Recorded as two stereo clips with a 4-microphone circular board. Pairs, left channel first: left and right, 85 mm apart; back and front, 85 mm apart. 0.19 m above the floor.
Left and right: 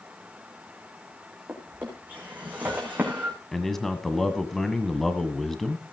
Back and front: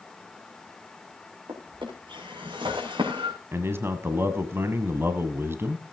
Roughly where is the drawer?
Ahead.